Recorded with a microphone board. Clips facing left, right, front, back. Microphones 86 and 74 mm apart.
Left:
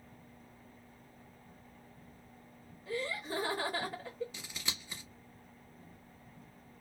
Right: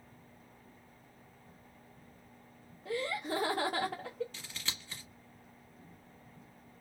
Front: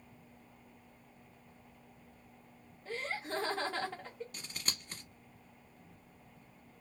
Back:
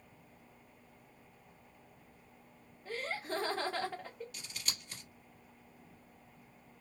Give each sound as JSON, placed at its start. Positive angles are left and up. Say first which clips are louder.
{"t": 2.9, "sound": "laughter", "louder": "right 2 dB, even", "azimuth_deg": -95, "distance_m": 0.7}
{"t": 4.3, "sound": "scissors", "louder": "left 1 dB, front 2 dB", "azimuth_deg": 20, "distance_m": 1.1}